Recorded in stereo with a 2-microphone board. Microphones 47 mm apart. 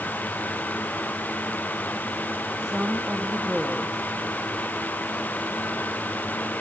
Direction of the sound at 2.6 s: 15° right (ahead or behind).